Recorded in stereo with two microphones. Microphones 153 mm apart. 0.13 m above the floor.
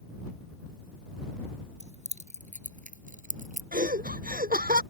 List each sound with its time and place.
1.8 s keys jangling: 45° right (ahead or behind); by 3.6 s 60° right (ahead or behind)
3.7 s laughter: 70° right (ahead or behind)